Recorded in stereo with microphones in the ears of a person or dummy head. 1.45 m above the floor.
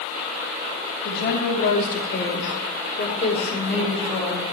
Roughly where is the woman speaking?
Left.